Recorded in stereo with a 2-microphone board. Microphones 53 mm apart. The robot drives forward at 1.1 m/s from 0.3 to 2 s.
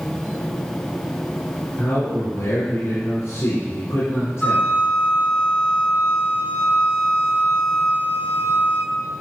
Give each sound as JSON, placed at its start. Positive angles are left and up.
{"t": 1.8, "sound": "a man speaking", "side_deg": 65, "distance_m": 3.5}
{"t": 4.4, "sound": "a flute", "side_deg": 25, "distance_m": 1.7}